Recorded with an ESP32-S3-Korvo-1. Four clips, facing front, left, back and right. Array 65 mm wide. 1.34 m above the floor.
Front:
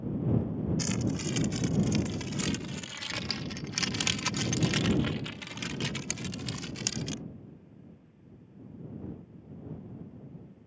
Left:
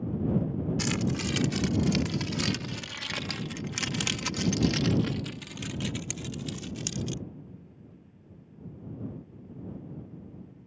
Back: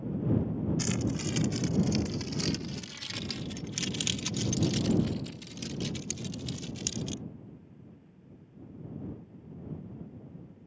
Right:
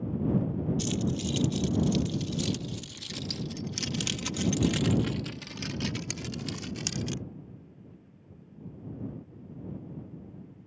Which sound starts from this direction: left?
Keys jangling, at 0.8 s.